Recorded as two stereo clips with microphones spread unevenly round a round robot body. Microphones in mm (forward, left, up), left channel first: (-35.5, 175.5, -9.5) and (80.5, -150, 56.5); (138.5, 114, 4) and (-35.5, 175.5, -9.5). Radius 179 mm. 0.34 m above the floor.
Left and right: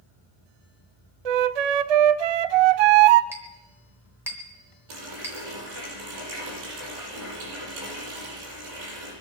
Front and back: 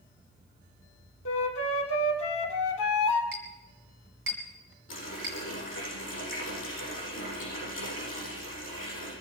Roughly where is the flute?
Ahead right.